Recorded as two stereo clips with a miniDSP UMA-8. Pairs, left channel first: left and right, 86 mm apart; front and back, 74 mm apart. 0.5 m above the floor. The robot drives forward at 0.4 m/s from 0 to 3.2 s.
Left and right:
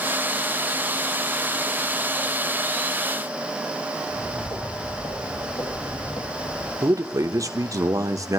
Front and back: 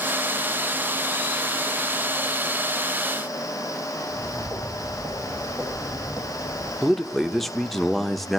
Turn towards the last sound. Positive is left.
turn(degrees=-85)